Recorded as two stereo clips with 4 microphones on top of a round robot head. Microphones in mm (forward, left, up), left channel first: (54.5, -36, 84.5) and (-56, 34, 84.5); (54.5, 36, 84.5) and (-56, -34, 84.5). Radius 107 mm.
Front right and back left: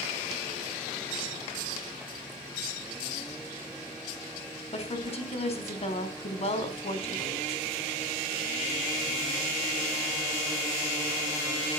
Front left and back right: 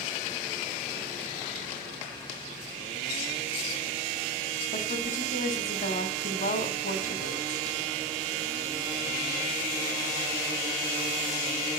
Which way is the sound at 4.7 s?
10° left.